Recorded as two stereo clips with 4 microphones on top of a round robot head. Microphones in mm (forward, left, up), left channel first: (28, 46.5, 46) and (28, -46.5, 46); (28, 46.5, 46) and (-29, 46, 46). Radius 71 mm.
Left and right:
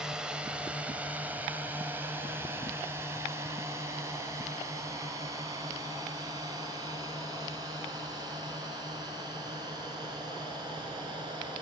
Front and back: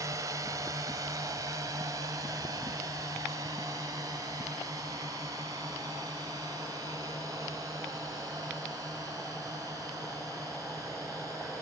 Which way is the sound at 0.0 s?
175° right.